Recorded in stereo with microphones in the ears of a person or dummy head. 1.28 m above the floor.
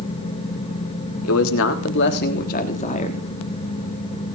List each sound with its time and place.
1.2 s a man speaking: 75° left (ahead or behind), 3.5 m; by 3.2 s 30° left (ahead or behind), 3.5 m